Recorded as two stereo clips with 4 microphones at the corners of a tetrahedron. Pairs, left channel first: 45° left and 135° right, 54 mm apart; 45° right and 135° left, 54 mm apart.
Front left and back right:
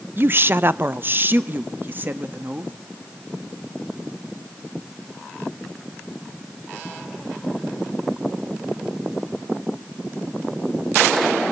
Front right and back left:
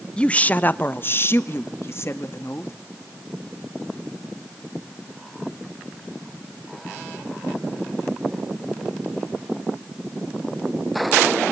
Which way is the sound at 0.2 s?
110° right.